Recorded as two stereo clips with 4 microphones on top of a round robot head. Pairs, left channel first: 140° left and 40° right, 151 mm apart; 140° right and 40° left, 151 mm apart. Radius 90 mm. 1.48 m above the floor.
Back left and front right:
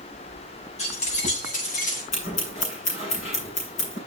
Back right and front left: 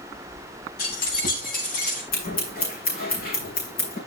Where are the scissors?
175° right, 9.5 m.